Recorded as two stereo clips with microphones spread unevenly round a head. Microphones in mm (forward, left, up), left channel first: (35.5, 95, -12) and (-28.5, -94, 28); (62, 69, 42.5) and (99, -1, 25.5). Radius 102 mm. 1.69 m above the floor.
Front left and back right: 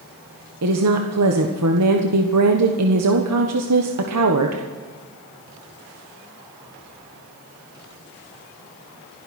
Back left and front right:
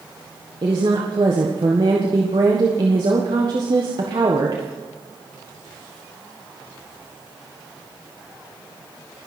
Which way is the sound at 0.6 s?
115° right.